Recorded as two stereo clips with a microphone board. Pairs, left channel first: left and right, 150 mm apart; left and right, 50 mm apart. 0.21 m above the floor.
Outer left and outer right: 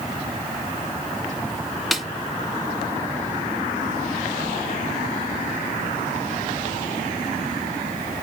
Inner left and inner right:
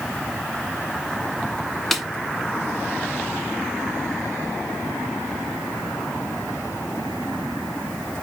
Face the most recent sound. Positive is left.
turn(degrees=0)  # may be behind; listen again after turning